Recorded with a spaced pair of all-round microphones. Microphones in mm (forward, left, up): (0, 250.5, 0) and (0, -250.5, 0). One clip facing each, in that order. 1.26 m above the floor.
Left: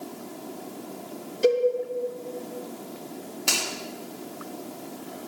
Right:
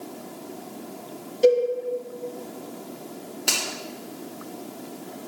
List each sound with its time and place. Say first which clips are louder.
1.4 s a cowbell: right 4 dB; 25° left (ahead or behind), 2.5 m
3.5 s a finger snap: even; 25° left (ahead or behind), 2 m